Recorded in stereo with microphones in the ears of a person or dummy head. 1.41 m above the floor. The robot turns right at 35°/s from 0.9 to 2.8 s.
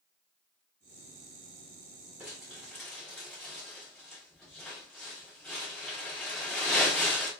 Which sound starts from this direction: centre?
Crumpling, at 2.2 s.